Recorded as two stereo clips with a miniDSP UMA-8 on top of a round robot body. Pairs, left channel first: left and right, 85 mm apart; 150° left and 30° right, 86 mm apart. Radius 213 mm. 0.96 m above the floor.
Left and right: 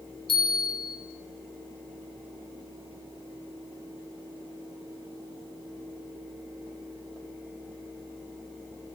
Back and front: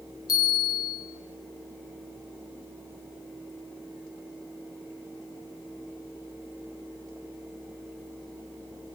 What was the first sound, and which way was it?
A bell, 110° left.